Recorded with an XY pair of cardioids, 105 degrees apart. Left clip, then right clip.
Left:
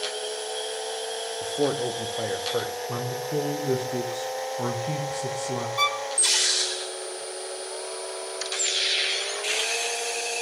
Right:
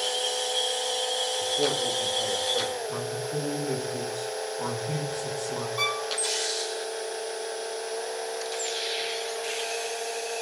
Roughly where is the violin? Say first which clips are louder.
Left 4 dB; ahead left.